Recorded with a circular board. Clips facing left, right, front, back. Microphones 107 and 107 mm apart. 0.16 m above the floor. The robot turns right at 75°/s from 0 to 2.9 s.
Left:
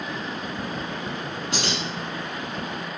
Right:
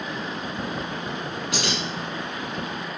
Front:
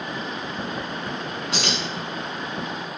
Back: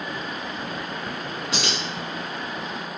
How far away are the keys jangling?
About 1.2 m.